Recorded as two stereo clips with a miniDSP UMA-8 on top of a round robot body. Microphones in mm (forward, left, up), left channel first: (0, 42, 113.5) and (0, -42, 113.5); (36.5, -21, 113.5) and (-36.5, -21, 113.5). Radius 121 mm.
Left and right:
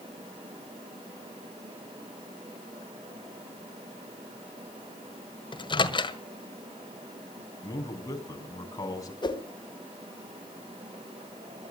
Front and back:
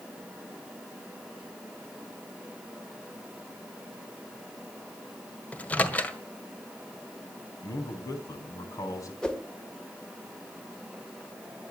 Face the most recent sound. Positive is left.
turn(degrees=80)